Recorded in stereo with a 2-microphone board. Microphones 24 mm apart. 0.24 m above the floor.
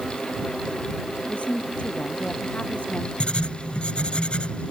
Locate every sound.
1.3 s a woman speaking: 65° left (ahead or behind)
3.2 s writing: 50° left (ahead or behind)